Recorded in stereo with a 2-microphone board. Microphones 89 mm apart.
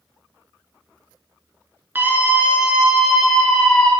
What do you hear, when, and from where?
1.9 s a scream: 20° right (ahead or behind), 2 m; by 3.9 s 10° left (ahead or behind), 2 m